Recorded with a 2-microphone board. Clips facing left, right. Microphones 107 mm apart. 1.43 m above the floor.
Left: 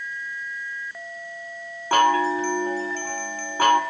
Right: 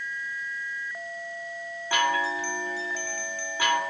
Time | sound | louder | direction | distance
1.9 | a chime | left 7 dB | 40° left (ahead or behind) | 2.5 m